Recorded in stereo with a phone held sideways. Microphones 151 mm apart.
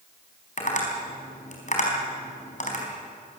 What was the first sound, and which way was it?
Tapping, 55° left (ahead or behind).